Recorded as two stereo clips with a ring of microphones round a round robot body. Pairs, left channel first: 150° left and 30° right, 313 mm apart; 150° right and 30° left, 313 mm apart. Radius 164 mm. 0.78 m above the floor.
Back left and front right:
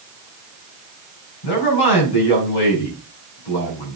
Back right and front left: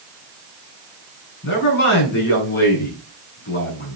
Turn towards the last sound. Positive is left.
turn(degrees=155)